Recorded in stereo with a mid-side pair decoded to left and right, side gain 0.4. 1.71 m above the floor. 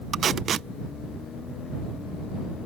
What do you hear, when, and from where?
0.1 s tape being pulled: 60° right